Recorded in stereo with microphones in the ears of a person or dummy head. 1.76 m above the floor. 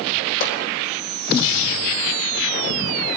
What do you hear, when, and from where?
0.4 s a pop: 70° left (ahead or behind), 4 m